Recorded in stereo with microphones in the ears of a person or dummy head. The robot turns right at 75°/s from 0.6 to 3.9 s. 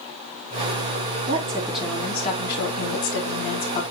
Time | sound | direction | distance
1.3 | a woman speaking | 30° right | 3.5 m